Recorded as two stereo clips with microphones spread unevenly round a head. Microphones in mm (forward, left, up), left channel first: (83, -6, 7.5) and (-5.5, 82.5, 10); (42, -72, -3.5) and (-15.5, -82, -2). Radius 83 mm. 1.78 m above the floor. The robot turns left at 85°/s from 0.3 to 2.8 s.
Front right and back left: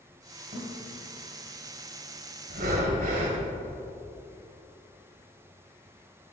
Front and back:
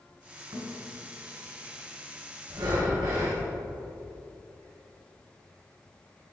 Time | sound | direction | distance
0.5 | a thud | 160° left | 3 m
2.5 | breathing | 170° left | 1.8 m